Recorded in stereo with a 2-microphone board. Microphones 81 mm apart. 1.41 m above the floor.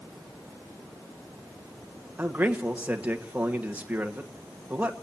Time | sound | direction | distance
2.2 | a man speaking | 20° right (ahead or behind) | 1.6 m